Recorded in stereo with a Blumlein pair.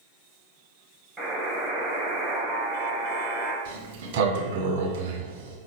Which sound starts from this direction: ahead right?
A sliding door, at 3.6 s.